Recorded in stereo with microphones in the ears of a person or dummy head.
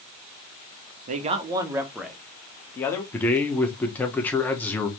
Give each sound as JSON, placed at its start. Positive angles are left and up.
{"t": 1.1, "sound": "a man speaking", "side_deg": -40, "distance_m": 0.7}
{"t": 3.1, "sound": "a man speaking", "side_deg": 10, "distance_m": 1.0}